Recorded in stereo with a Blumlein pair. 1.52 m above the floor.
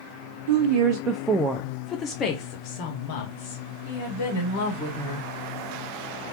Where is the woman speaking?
50° right, 0.6 m; by 5.3 s 60° left, 2 m.